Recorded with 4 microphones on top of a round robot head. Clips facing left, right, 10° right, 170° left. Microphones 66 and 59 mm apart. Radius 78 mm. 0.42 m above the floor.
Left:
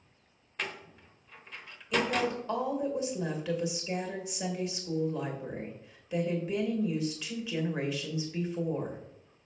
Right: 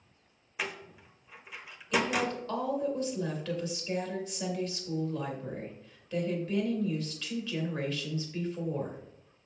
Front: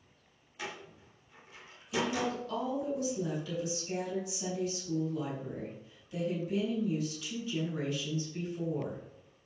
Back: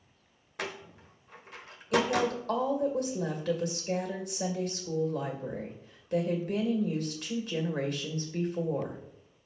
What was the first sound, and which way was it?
A door slam, 170° right.